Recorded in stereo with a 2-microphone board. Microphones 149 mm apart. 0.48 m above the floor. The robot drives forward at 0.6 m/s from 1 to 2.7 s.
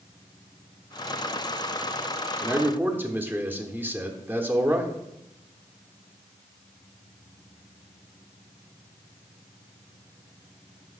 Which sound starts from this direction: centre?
A man speaking, at 2.4 s.